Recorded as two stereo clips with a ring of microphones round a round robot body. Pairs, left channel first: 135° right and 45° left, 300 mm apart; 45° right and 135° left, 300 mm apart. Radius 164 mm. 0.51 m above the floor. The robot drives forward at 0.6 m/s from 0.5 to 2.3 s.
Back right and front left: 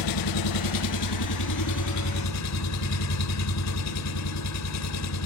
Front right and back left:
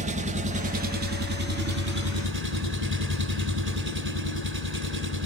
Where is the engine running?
155° right, 0.7 m; by 5.3 s 170° right, 1.7 m.